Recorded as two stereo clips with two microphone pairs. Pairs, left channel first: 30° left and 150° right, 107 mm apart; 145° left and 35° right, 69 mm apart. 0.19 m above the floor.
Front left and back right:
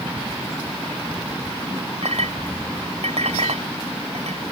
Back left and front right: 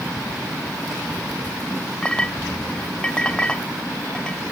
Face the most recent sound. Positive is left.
turn(degrees=-135)